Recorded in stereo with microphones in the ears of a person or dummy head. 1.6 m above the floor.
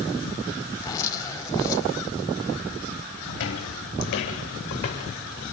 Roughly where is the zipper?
Centre.